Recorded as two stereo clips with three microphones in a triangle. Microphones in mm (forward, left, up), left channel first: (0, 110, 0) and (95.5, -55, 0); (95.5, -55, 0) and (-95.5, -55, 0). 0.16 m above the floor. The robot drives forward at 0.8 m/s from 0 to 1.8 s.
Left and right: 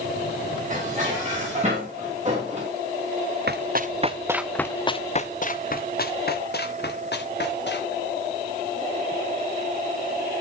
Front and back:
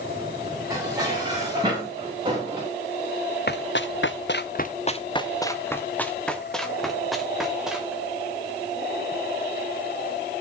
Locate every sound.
0.7 s dishes clattering: 110° right, 8.5 m; by 2.7 s 115° right, 8.5 m
3.5 s running footsteps: 30° right, 1.2 m; by 8.0 s 95° left, 4 m